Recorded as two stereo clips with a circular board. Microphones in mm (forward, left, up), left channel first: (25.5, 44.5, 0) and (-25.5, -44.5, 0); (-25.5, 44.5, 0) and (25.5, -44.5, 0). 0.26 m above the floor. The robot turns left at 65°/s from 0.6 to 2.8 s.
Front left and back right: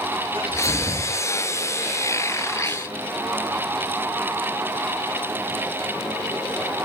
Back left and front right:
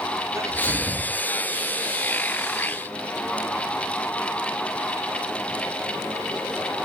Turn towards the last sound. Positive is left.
turn(degrees=100)